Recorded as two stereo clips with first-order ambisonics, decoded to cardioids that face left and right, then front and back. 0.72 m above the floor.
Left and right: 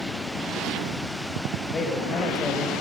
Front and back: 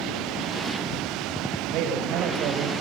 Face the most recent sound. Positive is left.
turn(degrees=155)